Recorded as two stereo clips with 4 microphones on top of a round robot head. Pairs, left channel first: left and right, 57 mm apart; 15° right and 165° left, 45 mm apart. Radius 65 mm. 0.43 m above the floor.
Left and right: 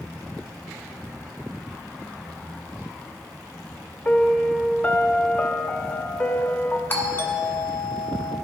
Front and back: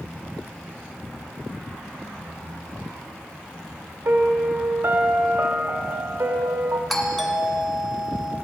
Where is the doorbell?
75° left, 1.4 m.